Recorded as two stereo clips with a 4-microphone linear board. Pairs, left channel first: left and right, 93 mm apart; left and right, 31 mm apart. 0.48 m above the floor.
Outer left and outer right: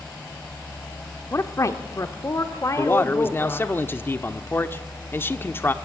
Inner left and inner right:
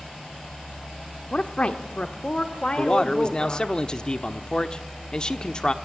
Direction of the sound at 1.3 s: 35° left (ahead or behind).